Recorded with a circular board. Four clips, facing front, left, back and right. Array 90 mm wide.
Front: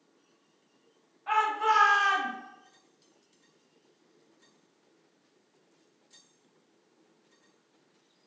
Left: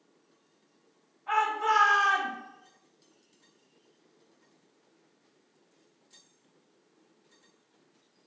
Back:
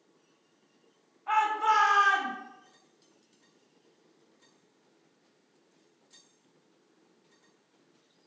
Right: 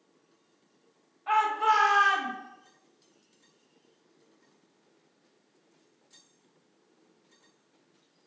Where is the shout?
55° right, 1.5 m.